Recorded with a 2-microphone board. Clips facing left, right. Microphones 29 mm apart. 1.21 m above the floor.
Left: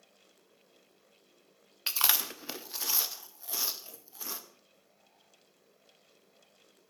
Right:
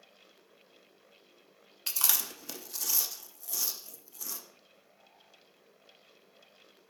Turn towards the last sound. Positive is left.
turn(degrees=30)  # may be behind; listen again after turning